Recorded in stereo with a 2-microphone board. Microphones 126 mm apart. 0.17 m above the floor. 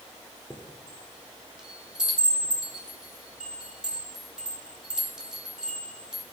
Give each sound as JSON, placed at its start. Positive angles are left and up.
{"t": 0.5, "sound": "a chime", "side_deg": -5, "distance_m": 1.6}